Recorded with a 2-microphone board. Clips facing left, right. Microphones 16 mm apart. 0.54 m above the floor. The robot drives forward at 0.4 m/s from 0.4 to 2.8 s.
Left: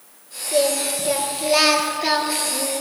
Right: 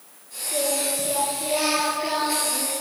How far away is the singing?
About 4.5 m.